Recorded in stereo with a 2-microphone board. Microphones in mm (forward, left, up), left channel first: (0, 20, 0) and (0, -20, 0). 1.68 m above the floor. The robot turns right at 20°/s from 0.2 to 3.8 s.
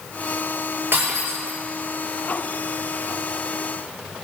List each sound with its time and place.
0.9 s breaking glass: 65° right (ahead or behind), 8.5 m; by 1.6 s 80° right, 8.5 m